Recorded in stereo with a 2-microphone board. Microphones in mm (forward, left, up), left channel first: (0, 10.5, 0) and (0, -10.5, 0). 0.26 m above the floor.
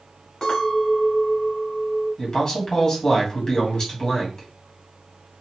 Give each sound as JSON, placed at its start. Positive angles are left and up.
{"t": 0.4, "sound": "a clink", "side_deg": 45, "distance_m": 1.8}
{"t": 2.2, "sound": "a man speaking", "side_deg": 35, "distance_m": 2.0}